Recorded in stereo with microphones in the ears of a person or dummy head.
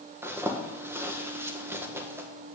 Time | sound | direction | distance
0.2 | a zipper | 5° right (ahead or behind) | 1.5 m